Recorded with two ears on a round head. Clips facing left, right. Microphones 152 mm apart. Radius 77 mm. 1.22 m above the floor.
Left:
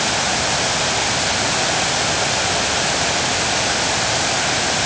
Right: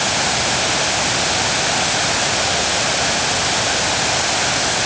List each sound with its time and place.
Only background noise.